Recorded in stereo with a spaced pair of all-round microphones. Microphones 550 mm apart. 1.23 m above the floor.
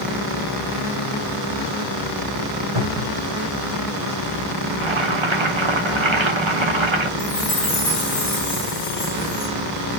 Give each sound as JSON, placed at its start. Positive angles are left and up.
{"t": 2.8, "sound": "a cupboard door", "side_deg": -65, "distance_m": 1.6}
{"t": 4.7, "sound": "boiling", "side_deg": -55, "distance_m": 1.1}
{"t": 7.2, "sound": "a chime", "side_deg": 55, "distance_m": 1.8}